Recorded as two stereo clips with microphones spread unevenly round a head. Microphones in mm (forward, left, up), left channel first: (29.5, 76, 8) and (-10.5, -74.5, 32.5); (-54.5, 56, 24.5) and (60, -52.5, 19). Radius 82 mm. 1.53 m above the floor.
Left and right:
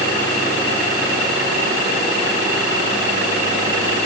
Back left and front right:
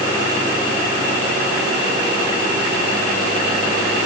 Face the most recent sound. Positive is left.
No sound to turn to.